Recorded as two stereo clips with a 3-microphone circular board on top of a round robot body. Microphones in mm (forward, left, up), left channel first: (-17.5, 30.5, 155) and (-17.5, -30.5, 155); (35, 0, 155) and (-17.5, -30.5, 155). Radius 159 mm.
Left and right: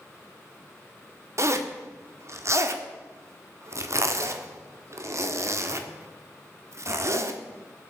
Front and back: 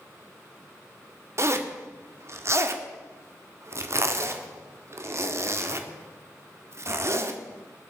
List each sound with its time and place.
1.4 s a zipper: 115° right, 1.6 m